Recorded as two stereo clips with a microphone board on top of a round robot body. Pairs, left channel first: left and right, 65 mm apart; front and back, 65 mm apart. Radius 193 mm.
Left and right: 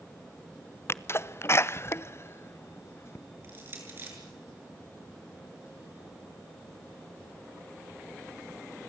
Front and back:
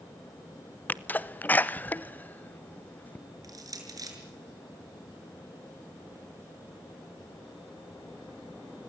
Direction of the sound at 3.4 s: 150° right.